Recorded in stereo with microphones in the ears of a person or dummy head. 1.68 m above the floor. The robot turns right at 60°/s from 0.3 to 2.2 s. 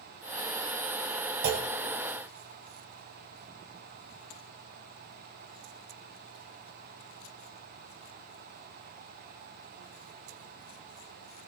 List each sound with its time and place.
1.4 s a clunk: 50° right (ahead or behind), 1.0 m; by 1.7 s 65° right (ahead or behind), 1.0 m